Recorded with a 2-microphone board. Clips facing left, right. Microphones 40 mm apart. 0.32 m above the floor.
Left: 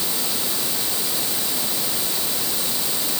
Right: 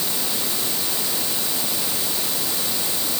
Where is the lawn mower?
I don't hear a lawn mower.